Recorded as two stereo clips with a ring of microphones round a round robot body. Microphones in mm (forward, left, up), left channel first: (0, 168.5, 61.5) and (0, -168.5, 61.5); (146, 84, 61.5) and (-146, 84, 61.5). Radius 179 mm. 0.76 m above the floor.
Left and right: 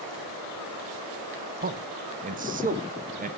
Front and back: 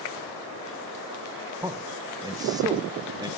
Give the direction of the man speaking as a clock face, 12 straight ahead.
4 o'clock.